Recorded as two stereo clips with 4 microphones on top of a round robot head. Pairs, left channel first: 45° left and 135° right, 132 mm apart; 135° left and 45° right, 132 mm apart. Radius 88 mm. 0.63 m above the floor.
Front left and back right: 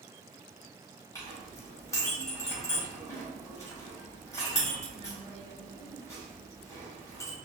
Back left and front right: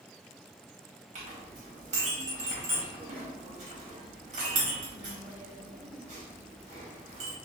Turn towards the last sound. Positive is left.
turn(degrees=-20)